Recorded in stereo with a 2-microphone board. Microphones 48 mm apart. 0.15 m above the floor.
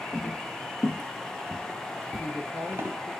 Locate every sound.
0.1 s footsteps: 35° left (ahead or behind), 1.0 m; by 3.0 s 55° right (ahead or behind), 1.3 m
2.2 s a woman speaking: 50° left (ahead or behind), 2.5 m